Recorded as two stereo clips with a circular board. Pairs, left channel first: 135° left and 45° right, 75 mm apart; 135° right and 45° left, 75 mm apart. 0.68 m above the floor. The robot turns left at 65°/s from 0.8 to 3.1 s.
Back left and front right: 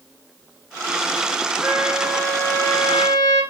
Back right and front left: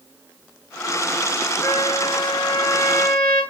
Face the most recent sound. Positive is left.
turn(degrees=150)